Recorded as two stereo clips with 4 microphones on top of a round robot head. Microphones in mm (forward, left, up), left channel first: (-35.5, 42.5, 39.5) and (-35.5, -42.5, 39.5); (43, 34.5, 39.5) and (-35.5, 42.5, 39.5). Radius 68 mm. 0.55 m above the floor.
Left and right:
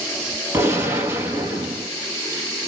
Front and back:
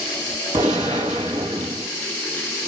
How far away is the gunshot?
About 1.9 m.